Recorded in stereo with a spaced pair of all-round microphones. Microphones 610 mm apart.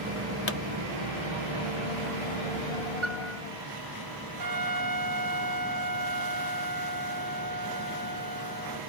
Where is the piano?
50° right (ahead or behind).